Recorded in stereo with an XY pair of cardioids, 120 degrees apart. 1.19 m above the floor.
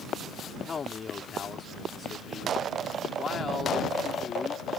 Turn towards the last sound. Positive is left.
turn(degrees=35)